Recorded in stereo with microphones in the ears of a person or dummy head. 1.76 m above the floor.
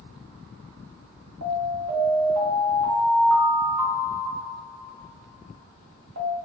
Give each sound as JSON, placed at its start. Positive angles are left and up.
{"t": 1.4, "sound": "an alarm", "side_deg": -80, "distance_m": 1.4}